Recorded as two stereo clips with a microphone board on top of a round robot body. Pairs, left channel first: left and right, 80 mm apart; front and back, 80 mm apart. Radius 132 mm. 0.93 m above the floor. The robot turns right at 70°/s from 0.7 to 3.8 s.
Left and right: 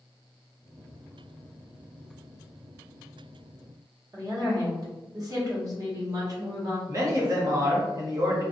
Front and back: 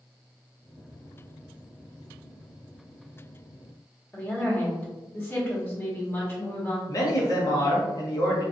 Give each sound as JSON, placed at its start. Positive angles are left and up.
{"t": 4.1, "sound": "a woman speaking", "azimuth_deg": -60, "distance_m": 1.3}
{"t": 6.9, "sound": "a man speaking", "azimuth_deg": -45, "distance_m": 0.9}